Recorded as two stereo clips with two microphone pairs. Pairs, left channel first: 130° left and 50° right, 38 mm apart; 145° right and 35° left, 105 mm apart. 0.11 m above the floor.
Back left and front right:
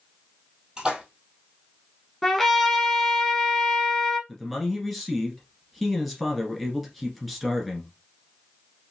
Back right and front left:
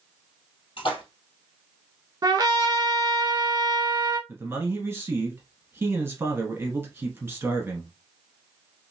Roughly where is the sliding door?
No sliding door in this recording.